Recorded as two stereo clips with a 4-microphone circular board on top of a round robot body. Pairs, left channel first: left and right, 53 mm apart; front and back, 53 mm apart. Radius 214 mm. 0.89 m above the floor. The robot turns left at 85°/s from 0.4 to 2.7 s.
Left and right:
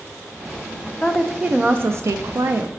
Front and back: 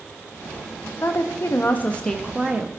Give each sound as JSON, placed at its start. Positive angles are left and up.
{"t": 1.0, "sound": "a woman speaking", "azimuth_deg": 15, "distance_m": 0.5}